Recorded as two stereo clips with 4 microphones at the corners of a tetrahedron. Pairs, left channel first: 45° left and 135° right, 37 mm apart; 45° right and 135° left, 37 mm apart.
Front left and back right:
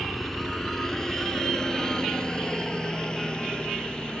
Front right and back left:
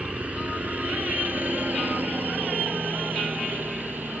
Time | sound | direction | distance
0.0 | a helicopter | 130° left | ?